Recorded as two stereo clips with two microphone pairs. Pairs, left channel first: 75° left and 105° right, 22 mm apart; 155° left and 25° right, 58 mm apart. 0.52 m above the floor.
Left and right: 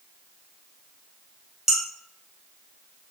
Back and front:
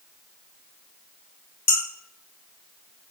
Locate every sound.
1.7 s dishes clattering: 165° right, 1.4 m